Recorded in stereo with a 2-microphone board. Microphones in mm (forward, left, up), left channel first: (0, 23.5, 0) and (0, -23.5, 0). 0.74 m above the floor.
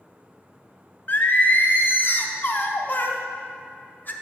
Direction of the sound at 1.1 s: 40° left (ahead or behind).